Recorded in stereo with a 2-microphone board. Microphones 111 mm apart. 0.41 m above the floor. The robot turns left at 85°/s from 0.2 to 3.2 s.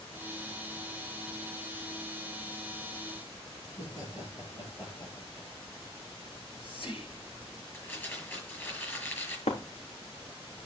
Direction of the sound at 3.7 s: 45° left (ahead or behind).